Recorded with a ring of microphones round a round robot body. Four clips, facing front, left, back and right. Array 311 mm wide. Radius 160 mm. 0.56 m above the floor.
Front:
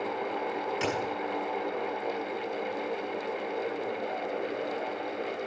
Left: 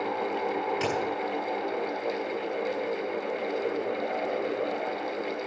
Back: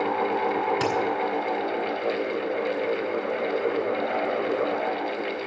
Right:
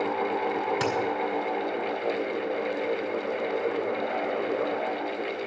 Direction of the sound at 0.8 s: 135° right.